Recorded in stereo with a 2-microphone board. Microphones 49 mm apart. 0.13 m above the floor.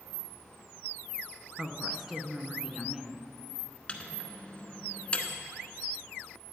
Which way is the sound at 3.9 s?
25° left (ahead or behind).